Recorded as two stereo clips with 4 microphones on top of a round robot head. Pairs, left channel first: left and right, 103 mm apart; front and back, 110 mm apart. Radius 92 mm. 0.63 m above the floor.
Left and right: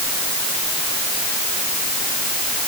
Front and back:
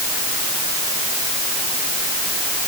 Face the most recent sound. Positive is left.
No sound to turn to.